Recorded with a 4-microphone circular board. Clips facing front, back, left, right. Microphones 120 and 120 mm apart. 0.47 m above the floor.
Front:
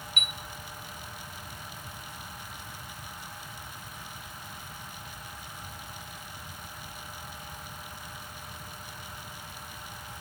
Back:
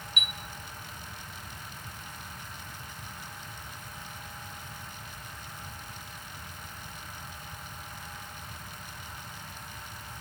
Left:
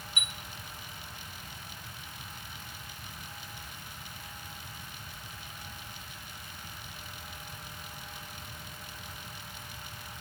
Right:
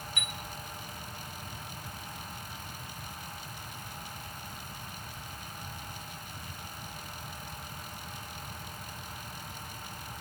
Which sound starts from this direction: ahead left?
A chime, at 0.2 s.